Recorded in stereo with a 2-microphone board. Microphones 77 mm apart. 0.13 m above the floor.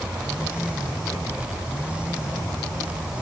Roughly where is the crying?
I don't hear crying.